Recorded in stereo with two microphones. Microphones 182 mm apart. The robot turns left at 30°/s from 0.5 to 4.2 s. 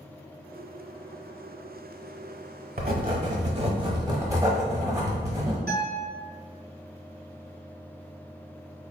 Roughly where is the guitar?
Right.